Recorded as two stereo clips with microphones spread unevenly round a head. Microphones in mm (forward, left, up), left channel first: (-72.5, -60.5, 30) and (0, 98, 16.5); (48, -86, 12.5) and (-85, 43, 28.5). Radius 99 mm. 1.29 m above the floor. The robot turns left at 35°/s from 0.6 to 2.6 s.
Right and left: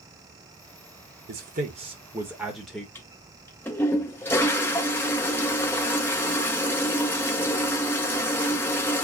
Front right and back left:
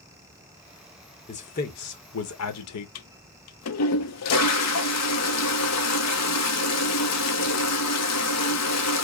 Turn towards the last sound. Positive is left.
turn(degrees=-35)